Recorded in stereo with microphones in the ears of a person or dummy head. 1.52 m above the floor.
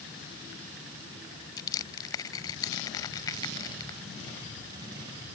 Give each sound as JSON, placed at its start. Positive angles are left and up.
{"t": 1.6, "sound": "crushing", "side_deg": 20}